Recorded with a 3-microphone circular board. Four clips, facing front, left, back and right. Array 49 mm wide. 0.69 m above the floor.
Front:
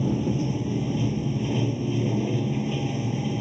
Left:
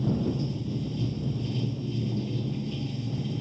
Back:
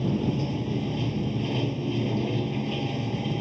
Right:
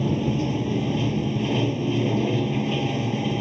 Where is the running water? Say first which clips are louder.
Right 5 dB, front 1 dB; 95° right.